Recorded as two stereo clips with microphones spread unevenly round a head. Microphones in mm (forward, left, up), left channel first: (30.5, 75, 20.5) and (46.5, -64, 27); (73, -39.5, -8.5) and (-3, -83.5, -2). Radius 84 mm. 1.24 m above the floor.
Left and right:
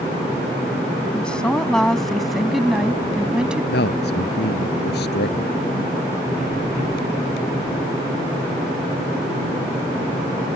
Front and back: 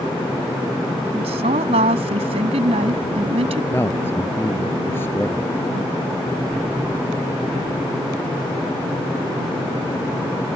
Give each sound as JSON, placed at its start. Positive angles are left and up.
{"t": 1.1, "sound": "a woman speaking", "azimuth_deg": 180}
{"t": 3.7, "sound": "a man speaking", "azimuth_deg": 110}